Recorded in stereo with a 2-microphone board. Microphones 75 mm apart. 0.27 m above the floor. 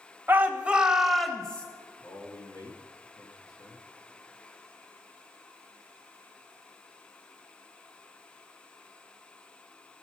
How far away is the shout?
About 1.0 m.